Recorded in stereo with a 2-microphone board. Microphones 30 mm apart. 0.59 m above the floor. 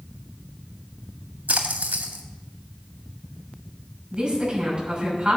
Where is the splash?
80° right, 1.7 m.